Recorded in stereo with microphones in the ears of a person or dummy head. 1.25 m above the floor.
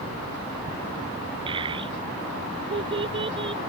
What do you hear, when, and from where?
1.5 s a child speaking: 30° right (ahead or behind)